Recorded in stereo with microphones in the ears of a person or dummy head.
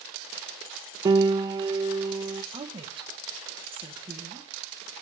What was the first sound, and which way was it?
A piano, 25° right (ahead or behind).